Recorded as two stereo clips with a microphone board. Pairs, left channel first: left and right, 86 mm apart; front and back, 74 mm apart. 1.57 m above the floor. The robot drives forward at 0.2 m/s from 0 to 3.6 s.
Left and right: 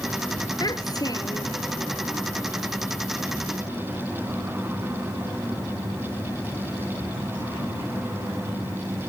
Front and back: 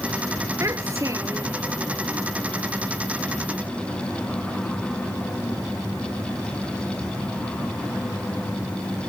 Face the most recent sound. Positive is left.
turn(degrees=135)